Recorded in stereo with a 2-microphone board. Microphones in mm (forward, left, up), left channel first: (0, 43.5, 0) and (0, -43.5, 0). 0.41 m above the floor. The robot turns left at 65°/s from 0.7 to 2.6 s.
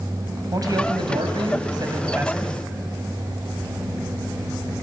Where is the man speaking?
55° right, 3 m; by 2.5 s 170° right, 3 m.